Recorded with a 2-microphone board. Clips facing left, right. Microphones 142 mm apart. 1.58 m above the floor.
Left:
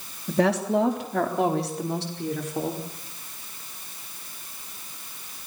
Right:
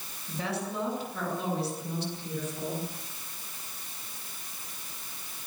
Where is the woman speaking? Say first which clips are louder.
Left 12 dB; 75° left (ahead or behind), 3.5 m.